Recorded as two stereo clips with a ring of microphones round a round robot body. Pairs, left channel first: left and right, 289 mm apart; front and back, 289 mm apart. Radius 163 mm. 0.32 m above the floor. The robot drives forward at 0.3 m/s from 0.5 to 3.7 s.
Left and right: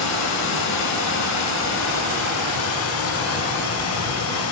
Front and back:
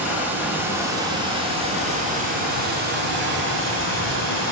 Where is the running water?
95° left, 1.4 m; by 4.5 s 130° left, 1.8 m.